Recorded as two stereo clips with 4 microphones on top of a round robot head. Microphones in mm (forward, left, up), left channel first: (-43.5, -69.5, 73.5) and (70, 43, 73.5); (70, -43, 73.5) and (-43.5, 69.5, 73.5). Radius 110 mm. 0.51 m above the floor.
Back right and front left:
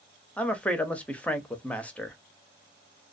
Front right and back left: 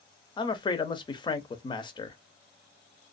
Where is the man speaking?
60° right, 0.8 m.